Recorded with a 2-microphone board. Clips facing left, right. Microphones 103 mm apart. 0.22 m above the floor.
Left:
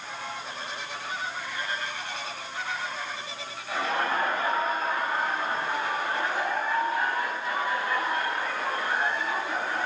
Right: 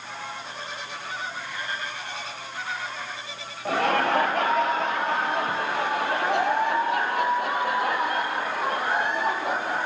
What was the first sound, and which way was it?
Laughter, 65° right (ahead or behind).